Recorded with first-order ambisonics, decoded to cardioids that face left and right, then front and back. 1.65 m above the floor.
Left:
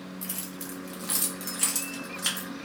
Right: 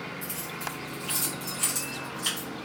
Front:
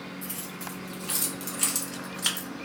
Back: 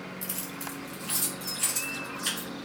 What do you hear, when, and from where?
0.2 s keys jangling: 145° left, 0.8 m; by 2.5 s 20° left, 1.2 m